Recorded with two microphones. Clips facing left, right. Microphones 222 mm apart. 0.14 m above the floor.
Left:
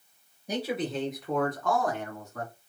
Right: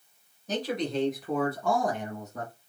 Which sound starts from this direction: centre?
A man speaking, at 0.5 s.